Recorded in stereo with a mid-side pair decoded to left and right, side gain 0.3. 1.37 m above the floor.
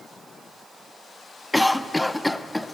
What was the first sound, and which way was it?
A cough, 10° left.